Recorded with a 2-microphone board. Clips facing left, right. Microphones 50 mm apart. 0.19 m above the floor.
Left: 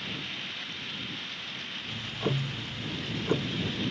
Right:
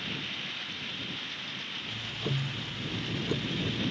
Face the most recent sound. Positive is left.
turn(degrees=30)  # may be behind; listen again after turning